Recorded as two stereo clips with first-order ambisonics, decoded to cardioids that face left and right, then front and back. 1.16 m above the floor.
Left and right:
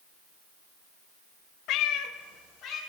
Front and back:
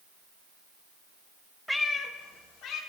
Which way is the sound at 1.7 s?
95° left.